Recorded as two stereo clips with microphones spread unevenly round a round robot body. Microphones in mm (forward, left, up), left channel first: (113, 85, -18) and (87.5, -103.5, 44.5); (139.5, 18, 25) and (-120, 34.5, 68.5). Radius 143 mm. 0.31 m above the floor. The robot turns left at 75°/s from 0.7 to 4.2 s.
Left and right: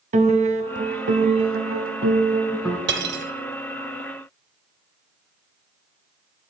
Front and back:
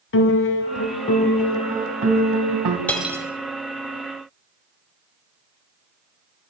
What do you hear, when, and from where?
0.1 s a piano: 40° right, 1.0 m; by 2.8 s 160° left, 1.0 m
2.9 s cutlery clinking: 80° right, 1.1 m; by 3.2 s 105° right, 1.1 m